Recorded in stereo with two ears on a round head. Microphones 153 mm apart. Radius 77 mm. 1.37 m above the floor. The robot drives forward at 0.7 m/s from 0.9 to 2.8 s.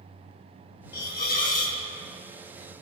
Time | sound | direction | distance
0.9 | a hiss | 65° left (ahead or behind) | 1.4 m